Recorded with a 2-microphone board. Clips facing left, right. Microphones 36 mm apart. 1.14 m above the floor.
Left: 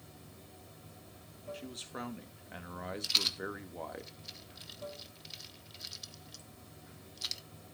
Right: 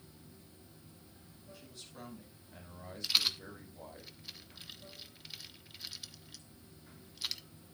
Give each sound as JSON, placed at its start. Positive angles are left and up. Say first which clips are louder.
{"t": 0.0, "sound": "running water", "louder": "left 3 dB", "side_deg": 75, "distance_m": 3.0}
{"t": 1.5, "sound": "a man speaking", "louder": "left 8 dB", "side_deg": 70, "distance_m": 1.8}
{"t": 3.0, "sound": "a rattle", "louder": "right 1 dB", "side_deg": -5, "distance_m": 1.1}